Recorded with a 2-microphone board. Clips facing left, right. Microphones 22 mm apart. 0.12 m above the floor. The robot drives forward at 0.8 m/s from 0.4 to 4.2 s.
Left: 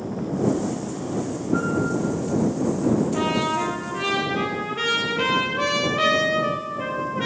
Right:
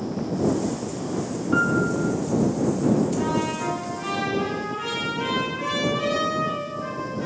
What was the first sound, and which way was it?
A piano, 60° right (ahead or behind).